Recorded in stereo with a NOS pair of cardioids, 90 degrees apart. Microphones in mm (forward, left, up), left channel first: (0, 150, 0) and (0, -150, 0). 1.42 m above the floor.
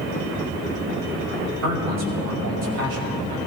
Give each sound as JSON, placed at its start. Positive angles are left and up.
{"t": 1.6, "sound": "a man speaking", "azimuth_deg": -60, "distance_m": 5.0}